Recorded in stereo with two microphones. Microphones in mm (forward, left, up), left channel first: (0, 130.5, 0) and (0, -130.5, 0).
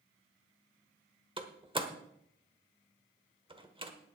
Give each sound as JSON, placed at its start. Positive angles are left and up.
{"t": 1.4, "sound": "a door slam", "side_deg": -20, "distance_m": 1.2}